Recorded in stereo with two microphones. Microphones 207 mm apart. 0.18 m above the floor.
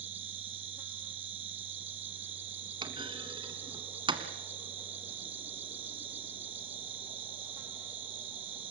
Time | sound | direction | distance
0.0 | an insect | 70° right (ahead or behind) | 1.1 m
2.8 | a clunk | 25° right (ahead or behind) | 1.6 m